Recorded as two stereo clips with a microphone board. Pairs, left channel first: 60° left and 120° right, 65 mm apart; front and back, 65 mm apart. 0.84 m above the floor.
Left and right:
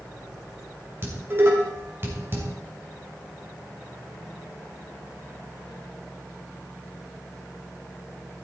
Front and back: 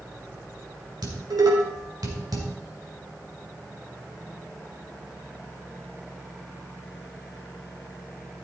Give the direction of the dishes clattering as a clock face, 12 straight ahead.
6 o'clock.